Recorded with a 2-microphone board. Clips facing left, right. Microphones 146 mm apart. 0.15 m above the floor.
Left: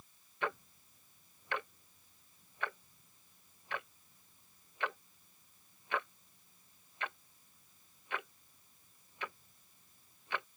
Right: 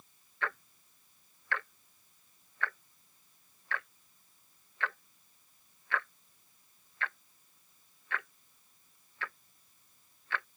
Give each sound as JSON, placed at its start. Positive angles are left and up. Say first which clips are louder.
{"t": 0.4, "sound": "ticking", "louder": "left 1 dB", "side_deg": 20}